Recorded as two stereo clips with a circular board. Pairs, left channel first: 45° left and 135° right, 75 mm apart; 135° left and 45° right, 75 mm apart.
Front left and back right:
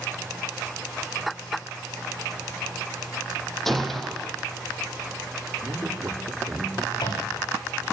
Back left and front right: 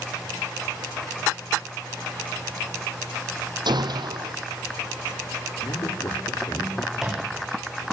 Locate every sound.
3.6 s a gunshot: 40° right, 5 m
5.6 s a man speaking: 170° left, 10 m
6.9 s a microwave: 40° left, 8.5 m